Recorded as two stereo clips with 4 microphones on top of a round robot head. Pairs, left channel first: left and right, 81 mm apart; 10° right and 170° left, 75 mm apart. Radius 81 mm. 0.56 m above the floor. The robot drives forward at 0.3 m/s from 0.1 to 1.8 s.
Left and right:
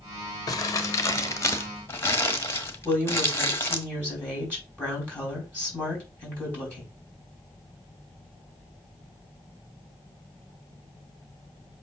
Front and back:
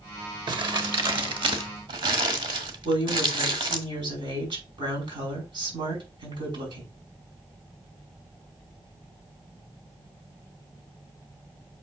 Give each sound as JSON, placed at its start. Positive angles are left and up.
{"t": 0.5, "sound": "crumpling", "azimuth_deg": 140, "distance_m": 1.0}
{"t": 2.9, "sound": "a woman speaking", "azimuth_deg": 165, "distance_m": 5.0}